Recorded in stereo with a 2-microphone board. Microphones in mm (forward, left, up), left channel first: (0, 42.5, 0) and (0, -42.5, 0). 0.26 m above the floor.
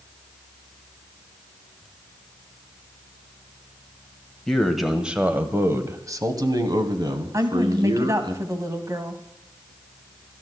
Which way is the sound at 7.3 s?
40° right (ahead or behind).